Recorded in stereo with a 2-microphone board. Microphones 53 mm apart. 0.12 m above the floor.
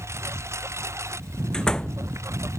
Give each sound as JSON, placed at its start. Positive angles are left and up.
{"t": 0.0, "sound": "a lawn mower", "side_deg": -65}
{"t": 1.5, "sound": "a door slam", "side_deg": 15}